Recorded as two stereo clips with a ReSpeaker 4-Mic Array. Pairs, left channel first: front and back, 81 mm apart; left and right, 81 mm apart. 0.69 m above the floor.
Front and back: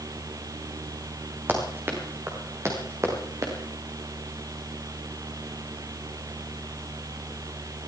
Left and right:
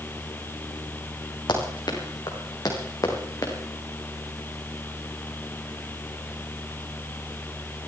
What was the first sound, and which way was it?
Running footsteps, 115° left.